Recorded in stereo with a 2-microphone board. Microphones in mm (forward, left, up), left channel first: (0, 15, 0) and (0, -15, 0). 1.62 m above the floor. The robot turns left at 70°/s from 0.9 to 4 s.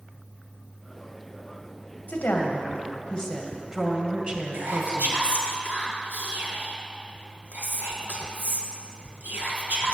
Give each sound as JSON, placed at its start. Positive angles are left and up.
{"t": 2.1, "sound": "a woman speaking", "azimuth_deg": 95, "distance_m": 2.0}
{"t": 4.5, "sound": "whispering", "side_deg": -80, "distance_m": 1.5}